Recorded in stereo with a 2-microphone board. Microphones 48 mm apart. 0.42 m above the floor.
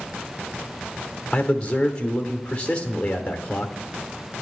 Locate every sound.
1.3 s a man speaking: 25° left (ahead or behind), 0.8 m